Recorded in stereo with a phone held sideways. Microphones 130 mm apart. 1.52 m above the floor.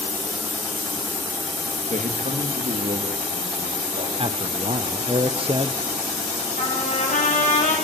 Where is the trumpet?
85° left, 9.5 m.